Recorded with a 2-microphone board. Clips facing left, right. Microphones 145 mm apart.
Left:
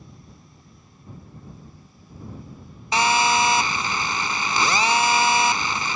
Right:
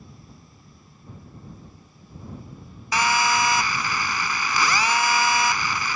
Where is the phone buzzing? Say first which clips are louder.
Left 2 dB; 25° left (ahead or behind).